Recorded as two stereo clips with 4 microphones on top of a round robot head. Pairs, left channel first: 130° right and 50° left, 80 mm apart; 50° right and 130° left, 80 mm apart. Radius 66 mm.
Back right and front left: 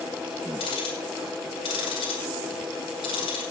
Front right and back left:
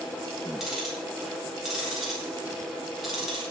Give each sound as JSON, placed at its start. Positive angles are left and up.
{"t": 0.6, "sound": "ticking", "azimuth_deg": -145, "distance_m": 5.5}